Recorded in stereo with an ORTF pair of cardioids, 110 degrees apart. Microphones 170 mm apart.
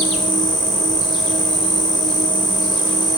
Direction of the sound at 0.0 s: Straight ahead.